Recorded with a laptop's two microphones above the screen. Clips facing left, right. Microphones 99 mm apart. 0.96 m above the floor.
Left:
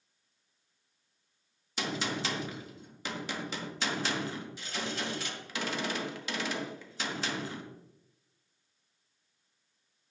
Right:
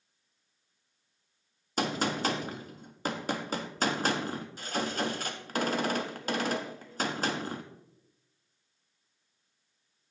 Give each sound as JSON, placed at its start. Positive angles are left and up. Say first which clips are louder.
{"t": 1.8, "sound": "a gunshot", "louder": "right 5 dB", "side_deg": -45, "distance_m": 1.4}